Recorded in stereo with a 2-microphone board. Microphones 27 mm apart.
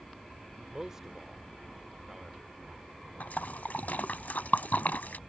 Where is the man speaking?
20° right (ahead or behind).